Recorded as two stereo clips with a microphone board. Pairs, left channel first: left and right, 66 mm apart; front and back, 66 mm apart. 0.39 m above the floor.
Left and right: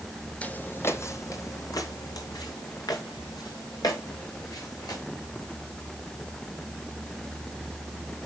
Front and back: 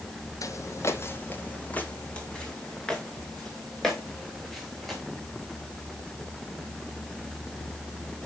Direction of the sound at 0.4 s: 20° left.